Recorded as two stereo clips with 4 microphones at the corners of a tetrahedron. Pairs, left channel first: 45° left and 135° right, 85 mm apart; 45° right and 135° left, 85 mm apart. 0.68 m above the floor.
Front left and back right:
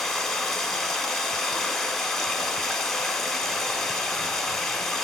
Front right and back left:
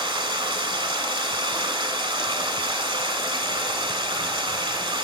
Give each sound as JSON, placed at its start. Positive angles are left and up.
{"t": 0.0, "sound": "running water", "azimuth_deg": 135, "distance_m": 1.4}